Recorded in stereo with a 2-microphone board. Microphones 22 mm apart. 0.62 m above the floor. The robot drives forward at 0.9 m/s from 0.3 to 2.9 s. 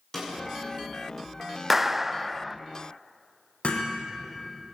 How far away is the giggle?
No giggle in this recording.